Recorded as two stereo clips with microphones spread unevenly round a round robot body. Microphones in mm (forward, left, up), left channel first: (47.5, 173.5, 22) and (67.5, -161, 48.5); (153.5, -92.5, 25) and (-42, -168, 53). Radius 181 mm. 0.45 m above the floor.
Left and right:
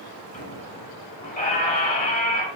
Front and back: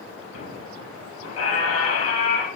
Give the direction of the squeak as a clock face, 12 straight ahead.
11 o'clock.